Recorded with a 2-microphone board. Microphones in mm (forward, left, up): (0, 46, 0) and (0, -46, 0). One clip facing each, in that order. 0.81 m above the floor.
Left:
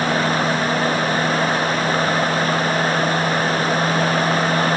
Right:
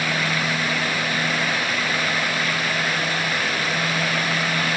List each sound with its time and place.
Only background noise.